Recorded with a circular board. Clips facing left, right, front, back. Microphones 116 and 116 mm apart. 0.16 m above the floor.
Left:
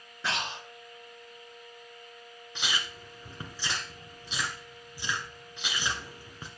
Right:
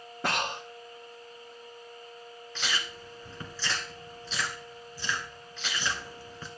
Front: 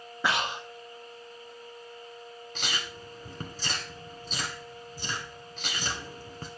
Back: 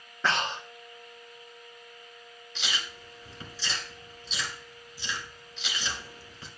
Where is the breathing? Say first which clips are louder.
Right 3 dB, even; 75° right, 1.4 m.